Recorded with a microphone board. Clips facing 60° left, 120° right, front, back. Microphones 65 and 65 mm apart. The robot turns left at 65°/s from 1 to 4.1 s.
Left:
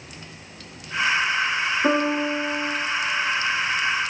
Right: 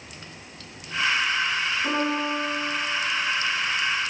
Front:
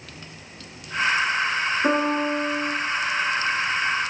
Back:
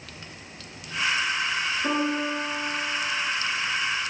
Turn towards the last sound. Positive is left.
turn(degrees=-100)